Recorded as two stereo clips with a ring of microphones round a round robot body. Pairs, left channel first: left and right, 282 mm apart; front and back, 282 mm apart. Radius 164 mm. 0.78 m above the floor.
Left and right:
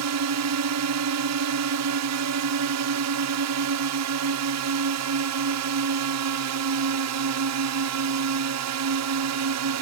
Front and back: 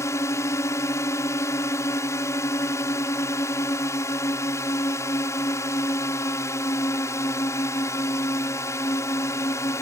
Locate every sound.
0.0 s a drone: 80° right